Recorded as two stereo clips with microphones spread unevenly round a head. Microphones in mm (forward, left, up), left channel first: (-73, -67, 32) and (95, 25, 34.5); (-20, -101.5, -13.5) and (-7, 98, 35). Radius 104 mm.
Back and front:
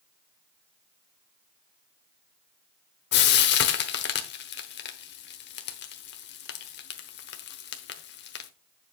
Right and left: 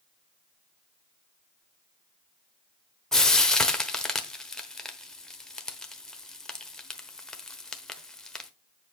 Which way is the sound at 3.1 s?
170° left.